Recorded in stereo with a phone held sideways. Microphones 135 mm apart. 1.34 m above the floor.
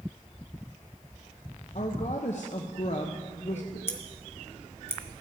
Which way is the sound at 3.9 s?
20° left (ahead or behind).